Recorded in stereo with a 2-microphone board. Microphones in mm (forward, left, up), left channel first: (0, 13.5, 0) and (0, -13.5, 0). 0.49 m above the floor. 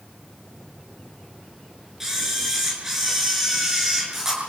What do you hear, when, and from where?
2.0 s a camera shutter: 15° right (ahead or behind), 8.5 m